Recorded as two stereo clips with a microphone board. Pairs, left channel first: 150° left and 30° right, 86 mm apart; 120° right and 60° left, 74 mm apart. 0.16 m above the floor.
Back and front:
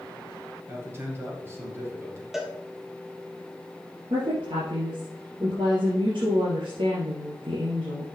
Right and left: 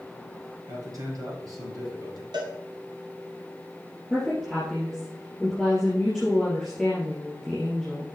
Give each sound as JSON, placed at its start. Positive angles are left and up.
{"t": 0.7, "sound": "a man speaking", "azimuth_deg": 30, "distance_m": 3.0}
{"t": 2.3, "sound": "a cowbell", "azimuth_deg": 55, "distance_m": 1.4}
{"t": 4.1, "sound": "a woman speaking", "azimuth_deg": -30, "distance_m": 4.0}